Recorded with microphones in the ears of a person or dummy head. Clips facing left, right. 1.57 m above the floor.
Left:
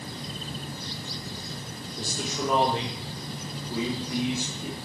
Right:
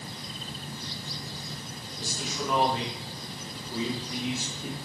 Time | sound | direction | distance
2.0 | a man speaking | 50° left (ahead or behind) | 1.9 m